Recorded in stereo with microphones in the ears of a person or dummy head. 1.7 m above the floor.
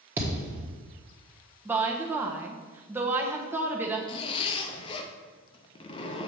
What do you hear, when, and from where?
0.2 s a thud: 15° right (ahead or behind), 1.3 m
1.6 s a woman speaking: 15° right (ahead or behind), 1.0 m
4.1 s a zipper: 30° left (ahead or behind), 0.8 m